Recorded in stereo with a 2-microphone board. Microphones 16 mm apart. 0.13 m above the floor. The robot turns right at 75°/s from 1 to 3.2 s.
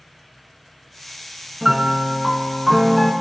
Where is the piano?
15° right (ahead or behind), 1.2 m; by 3.1 s 10° right (ahead or behind), 1.2 m.